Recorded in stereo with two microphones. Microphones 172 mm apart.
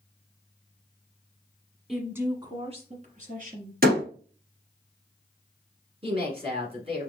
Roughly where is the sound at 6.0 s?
Right.